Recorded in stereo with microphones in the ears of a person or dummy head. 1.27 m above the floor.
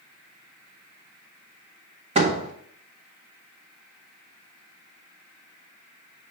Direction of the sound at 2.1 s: 30° right (ahead or behind).